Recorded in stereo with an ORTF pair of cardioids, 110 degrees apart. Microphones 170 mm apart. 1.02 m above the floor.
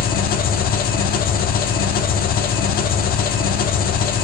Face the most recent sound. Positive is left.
turn(degrees=65)